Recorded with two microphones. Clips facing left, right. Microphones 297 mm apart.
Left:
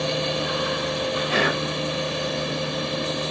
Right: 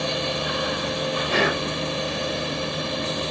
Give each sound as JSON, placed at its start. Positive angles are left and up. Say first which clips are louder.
{"t": 1.3, "sound": "whispering", "louder": "right 3 dB", "side_deg": -60, "distance_m": 3.0}